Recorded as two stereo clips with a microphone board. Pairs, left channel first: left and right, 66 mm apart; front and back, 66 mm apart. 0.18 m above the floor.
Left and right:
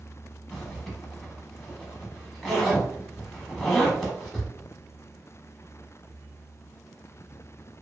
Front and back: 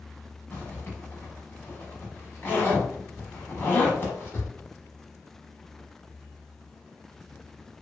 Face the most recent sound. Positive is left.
turn(degrees=5)